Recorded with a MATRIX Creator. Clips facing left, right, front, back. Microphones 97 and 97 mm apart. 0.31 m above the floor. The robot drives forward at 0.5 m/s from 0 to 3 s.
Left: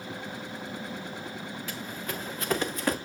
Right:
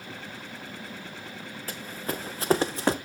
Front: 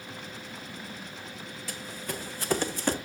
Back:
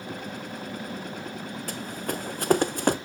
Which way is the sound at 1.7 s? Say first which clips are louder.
Right 5 dB, back 5 dB; 140° right.